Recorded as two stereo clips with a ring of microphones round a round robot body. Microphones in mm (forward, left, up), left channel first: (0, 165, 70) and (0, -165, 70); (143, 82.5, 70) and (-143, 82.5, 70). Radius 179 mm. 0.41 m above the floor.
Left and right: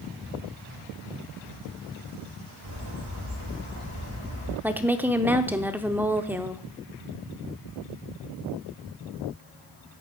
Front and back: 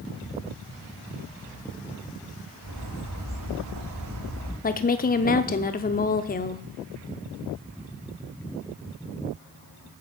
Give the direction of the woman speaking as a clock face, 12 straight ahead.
12 o'clock.